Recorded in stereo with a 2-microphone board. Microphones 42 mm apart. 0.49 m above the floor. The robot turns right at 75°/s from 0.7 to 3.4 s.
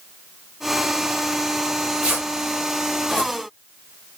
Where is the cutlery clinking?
I don't hear cutlery clinking.